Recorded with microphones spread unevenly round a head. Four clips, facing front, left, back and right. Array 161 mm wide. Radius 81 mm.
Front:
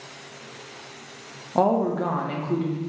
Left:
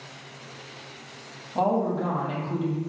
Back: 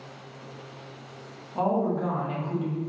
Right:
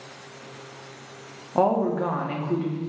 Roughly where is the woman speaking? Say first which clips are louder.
Right 3 dB, front 4 dB; ahead right.